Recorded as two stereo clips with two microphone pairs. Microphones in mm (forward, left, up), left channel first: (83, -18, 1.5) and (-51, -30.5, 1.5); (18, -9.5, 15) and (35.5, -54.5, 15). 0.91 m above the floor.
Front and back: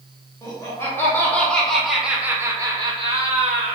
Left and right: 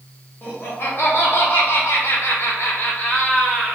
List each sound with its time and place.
0.4 s laughter: 70° left, 1.5 m; by 3.8 s 175° left, 0.9 m